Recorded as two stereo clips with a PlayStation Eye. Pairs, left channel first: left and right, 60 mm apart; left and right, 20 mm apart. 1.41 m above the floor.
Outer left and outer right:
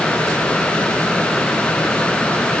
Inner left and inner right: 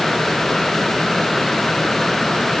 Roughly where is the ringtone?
No ringtone in this recording.